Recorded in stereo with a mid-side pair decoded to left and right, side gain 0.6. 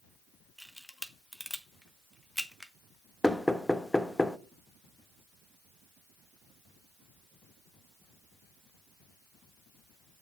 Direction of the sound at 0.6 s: Straight ahead.